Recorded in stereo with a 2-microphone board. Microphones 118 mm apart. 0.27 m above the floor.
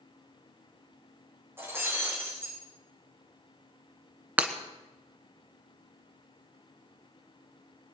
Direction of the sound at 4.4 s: 10° right (ahead or behind).